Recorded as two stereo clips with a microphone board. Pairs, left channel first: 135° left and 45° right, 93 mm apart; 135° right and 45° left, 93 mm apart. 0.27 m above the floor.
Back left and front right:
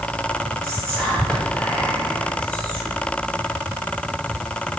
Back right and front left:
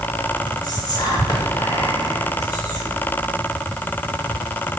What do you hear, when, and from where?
0.6 s whispering: 150° right, 1.8 m